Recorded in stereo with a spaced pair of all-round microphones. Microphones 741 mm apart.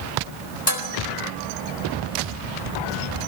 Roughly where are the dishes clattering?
Left.